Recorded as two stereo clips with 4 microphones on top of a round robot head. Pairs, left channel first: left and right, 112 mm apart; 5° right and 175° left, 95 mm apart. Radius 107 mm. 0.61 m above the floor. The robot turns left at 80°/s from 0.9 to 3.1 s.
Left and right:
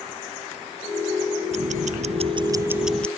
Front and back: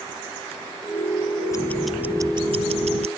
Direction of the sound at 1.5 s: 65° right.